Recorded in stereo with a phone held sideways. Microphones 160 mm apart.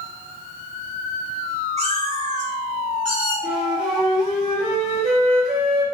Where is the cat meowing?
45° right (ahead or behind), 1.3 m; by 3.3 s 55° right (ahead or behind), 2 m.